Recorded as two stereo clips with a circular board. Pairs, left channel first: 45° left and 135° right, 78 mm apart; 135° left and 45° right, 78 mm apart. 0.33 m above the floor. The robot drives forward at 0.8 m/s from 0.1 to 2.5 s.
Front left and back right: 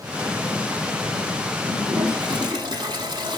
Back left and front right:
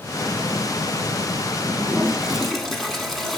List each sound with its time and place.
1.6 s a toilet flushing: 95° right, 0.7 m; by 3.4 s 140° right, 1.0 m